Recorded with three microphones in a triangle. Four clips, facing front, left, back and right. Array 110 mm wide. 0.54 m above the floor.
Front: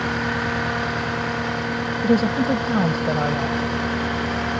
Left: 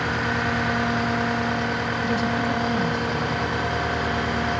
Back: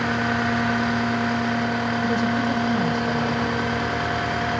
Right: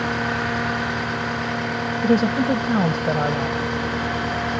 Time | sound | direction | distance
2.0 | a woman speaking | 55° right | ?